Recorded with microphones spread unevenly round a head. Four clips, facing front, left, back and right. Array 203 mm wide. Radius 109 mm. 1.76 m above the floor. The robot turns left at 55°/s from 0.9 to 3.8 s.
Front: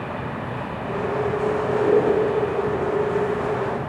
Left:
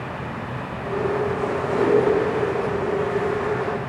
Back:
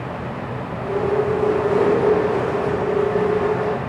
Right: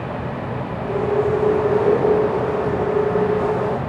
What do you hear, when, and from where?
1.7 s a whoosh: 165° left, 2.5 m; by 2.0 s 155° left, 2.5 m